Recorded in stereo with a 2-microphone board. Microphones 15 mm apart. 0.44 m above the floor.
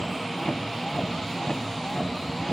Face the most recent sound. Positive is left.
turn(degrees=70)  # may be behind; listen again after turning